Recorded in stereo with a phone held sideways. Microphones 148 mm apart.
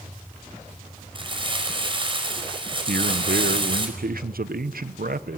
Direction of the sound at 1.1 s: 35° right (ahead or behind).